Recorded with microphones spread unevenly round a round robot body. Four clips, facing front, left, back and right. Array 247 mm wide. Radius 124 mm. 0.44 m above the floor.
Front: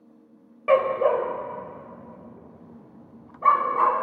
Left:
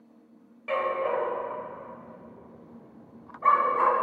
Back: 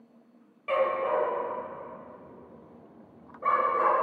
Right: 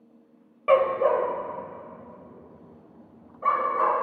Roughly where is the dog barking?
Ahead right.